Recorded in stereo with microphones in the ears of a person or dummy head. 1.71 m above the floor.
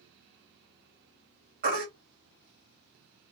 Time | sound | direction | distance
1.6 | a baby crying | 50° right (ahead or behind) | 1.6 m